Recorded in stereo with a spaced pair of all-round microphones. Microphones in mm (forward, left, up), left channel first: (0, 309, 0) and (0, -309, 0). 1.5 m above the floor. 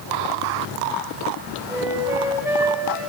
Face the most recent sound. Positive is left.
turn(degrees=-5)  # may be behind; listen again after turning